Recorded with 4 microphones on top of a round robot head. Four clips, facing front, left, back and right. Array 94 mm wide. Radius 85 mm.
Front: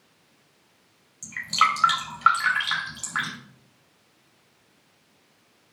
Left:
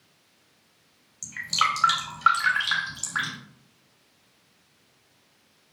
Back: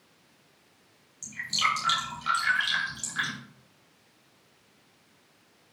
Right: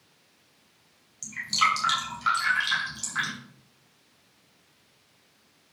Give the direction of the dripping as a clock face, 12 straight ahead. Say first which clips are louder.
Even, front 7 dB; 11 o'clock.